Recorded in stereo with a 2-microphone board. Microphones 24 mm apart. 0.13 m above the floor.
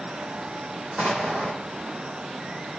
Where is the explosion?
75° right (ahead or behind), 1.6 m.